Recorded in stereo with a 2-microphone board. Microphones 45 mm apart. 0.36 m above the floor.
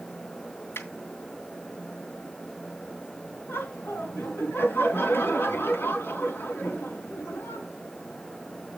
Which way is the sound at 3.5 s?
60° left (ahead or behind).